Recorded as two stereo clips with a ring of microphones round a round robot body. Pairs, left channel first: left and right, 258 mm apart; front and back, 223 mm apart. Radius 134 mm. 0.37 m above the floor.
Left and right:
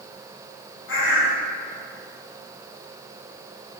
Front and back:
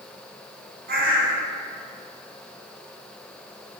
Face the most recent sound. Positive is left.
turn(degrees=135)